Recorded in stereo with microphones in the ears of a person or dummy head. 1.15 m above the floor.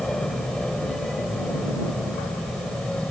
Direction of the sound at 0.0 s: 5° left (ahead or behind).